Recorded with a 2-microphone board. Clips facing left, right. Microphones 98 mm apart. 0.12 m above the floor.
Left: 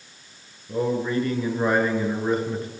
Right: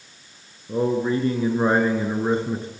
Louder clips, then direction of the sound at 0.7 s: Right 2 dB; 25° right (ahead or behind).